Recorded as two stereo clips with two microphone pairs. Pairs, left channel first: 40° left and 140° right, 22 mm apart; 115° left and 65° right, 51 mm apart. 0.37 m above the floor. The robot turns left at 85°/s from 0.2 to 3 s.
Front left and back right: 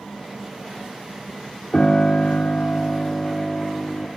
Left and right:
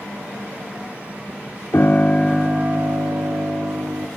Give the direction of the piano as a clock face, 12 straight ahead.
9 o'clock.